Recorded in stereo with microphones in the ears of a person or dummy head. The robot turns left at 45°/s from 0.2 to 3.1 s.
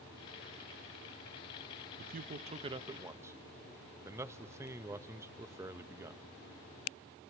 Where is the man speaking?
45° right (ahead or behind), 0.6 m; by 6.2 s 10° right (ahead or behind), 0.6 m.